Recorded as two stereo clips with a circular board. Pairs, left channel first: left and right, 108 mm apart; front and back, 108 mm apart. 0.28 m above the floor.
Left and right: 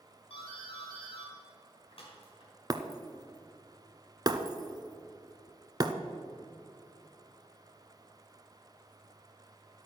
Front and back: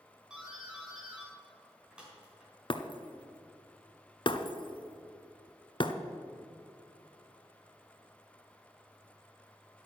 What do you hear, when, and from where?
0.3 s a doorbell: 100° left, 4.5 m
2.7 s breaking glass: 40° right, 0.8 m